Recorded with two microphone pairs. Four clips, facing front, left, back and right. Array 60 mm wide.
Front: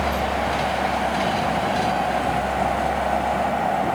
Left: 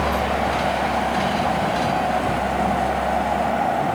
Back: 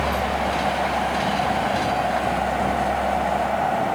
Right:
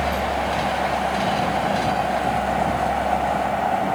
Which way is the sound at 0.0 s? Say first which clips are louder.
Left 2 dB, even; 105° left.